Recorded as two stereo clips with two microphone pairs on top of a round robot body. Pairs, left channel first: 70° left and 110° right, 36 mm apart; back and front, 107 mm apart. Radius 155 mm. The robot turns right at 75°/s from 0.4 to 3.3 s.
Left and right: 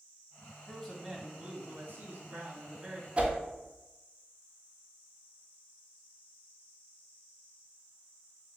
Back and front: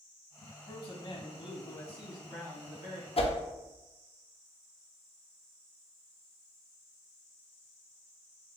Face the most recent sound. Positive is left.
turn(degrees=-160)